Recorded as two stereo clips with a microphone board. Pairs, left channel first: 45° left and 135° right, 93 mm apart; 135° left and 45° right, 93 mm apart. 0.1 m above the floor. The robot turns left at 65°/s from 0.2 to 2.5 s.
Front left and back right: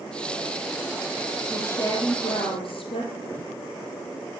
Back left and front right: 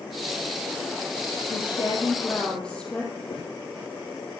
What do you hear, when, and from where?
1.5 s a woman speaking: 120° left, 3 m; by 3.1 s 55° left, 3 m
3.3 s footsteps: 115° left, 4 m